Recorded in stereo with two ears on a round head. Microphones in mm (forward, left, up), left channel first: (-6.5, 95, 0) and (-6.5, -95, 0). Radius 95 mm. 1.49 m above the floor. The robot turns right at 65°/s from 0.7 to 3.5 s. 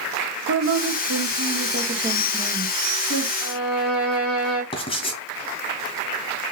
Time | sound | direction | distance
0.5 | a woman speaking | 110° right | 1.7 m
3.4 | a violin | 80° left | 3 m
4.7 | writing | 25° left (ahead or behind) | 2.5 m